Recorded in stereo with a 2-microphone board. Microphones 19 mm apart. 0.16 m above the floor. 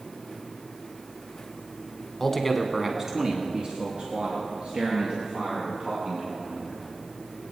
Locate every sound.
2.2 s a man speaking: 15° left (ahead or behind), 1.1 m; by 6.8 s 75° right (ahead or behind), 4.5 m